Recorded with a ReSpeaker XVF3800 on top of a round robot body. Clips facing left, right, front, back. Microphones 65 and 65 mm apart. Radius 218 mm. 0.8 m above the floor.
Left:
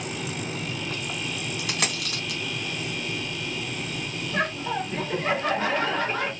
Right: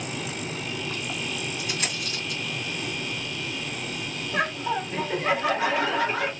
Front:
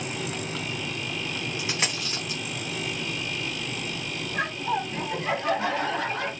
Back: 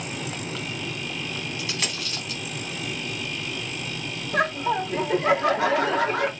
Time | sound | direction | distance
1.6 | a dropped coin | 70° left | 1.4 m
4.3 | laughter | 175° right | 2 m